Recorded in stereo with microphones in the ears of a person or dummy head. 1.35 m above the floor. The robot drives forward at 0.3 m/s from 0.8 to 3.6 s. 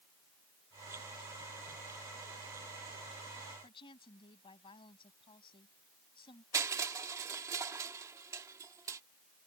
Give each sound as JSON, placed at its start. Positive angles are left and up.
{"t": 3.6, "sound": "a woman speaking", "side_deg": 30}
{"t": 6.5, "sound": "crushing", "side_deg": -15}